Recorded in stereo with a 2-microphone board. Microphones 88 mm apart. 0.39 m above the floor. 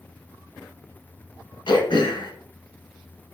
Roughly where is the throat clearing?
Left.